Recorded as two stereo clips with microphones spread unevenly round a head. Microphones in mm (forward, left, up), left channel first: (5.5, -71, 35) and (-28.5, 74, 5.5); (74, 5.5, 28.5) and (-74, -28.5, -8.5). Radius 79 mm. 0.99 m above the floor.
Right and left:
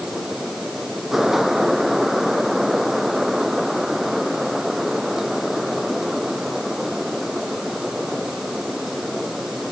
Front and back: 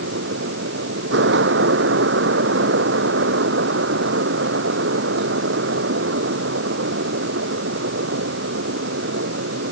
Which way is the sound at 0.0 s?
170° right.